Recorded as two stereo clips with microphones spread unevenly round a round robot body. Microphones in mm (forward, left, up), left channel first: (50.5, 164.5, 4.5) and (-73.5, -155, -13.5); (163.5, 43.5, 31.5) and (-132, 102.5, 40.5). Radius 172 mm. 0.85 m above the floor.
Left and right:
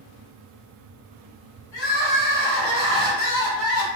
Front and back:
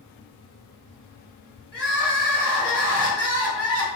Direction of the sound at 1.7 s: 90° left.